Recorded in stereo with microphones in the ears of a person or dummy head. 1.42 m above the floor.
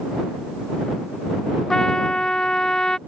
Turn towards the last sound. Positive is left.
turn(degrees=5)  # may be behind; listen again after turning